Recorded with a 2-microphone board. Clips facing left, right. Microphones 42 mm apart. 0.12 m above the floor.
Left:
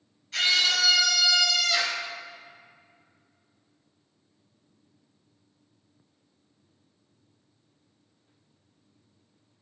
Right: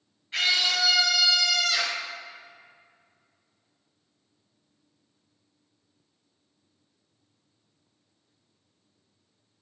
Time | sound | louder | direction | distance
0.3 | a scream | left 1 dB | 20° right (ahead or behind) | 2.5 m